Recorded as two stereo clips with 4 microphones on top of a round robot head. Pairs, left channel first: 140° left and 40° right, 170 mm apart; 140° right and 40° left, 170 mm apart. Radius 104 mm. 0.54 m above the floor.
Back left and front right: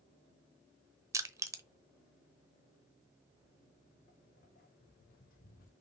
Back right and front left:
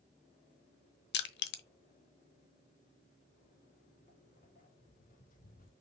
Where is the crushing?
115° right, 0.9 m.